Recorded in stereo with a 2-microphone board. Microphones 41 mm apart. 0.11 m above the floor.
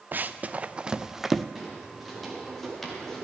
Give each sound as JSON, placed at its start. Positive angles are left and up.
{"t": 0.1, "sound": "running footsteps", "side_deg": -50, "distance_m": 0.8}
{"t": 1.6, "sound": "footsteps", "side_deg": -5, "distance_m": 5.0}